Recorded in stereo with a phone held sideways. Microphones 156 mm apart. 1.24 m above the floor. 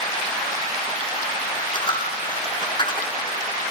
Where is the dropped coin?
30° left (ahead or behind), 4 m.